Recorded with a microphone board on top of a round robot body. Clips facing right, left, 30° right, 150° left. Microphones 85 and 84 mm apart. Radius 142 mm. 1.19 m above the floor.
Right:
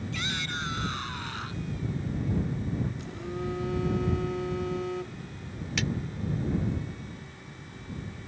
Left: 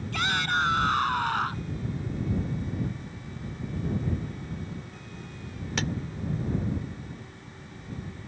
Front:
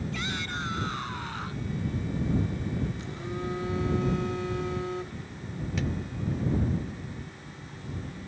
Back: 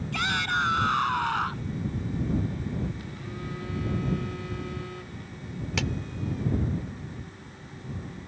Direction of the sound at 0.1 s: 125° left.